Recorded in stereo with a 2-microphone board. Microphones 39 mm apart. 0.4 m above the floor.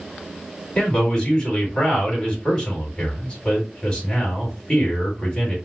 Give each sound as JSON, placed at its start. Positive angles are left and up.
{"t": 0.8, "sound": "a man speaking", "side_deg": 20, "distance_m": 3.0}